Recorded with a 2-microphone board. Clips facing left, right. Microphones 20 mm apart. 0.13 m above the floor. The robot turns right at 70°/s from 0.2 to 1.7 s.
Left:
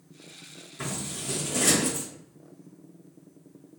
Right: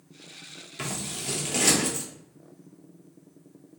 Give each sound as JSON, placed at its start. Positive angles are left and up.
{"t": 0.8, "sound": "scissors", "side_deg": -65, "distance_m": 0.8}